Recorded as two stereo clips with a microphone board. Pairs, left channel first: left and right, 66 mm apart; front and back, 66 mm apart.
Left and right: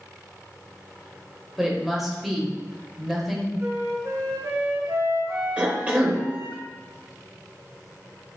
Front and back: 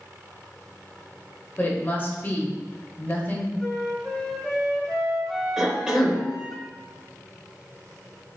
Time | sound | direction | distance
1.6 | a woman speaking | 5° right | 1.0 m
3.6 | a flute | 90° right | 1.3 m
5.6 | a cough | 120° right | 0.9 m